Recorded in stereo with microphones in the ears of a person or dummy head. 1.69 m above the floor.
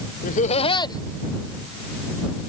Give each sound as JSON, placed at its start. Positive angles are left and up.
{"t": 0.2, "sound": "laughter", "side_deg": 45}